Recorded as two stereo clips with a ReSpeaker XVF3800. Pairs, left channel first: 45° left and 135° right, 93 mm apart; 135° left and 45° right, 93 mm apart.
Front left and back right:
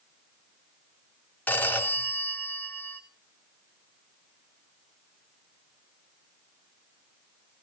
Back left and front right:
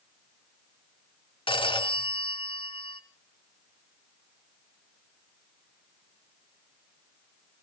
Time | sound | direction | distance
1.5 | a phone ringing | 115° left | 2.5 m